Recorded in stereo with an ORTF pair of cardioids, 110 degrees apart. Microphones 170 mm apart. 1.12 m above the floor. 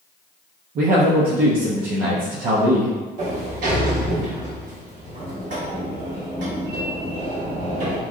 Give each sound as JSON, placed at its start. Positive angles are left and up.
{"t": 0.8, "sound": "a man speaking", "azimuth_deg": -60, "distance_m": 0.8}
{"t": 3.2, "sound": "a sliding door", "azimuth_deg": -55, "distance_m": 1.3}